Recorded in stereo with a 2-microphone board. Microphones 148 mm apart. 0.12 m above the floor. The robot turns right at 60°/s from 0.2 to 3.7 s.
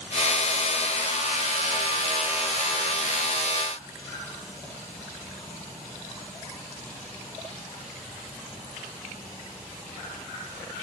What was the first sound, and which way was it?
Only background noise.